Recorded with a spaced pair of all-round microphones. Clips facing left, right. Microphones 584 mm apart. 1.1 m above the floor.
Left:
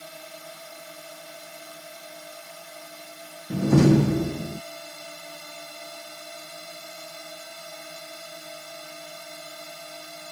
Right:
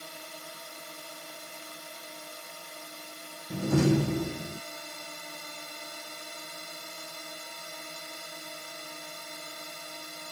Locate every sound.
0.0 s a drone: 15° left (ahead or behind)
3.5 s a door slam: 75° left (ahead or behind)